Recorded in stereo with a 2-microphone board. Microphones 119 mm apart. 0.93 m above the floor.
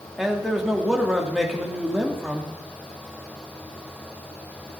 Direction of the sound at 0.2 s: Centre (ahead or behind).